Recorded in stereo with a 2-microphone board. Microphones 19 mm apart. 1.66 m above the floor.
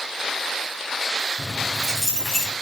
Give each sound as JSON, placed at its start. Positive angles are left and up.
{"t": 1.4, "sound": "keys jangling", "side_deg": -20, "distance_m": 6.5}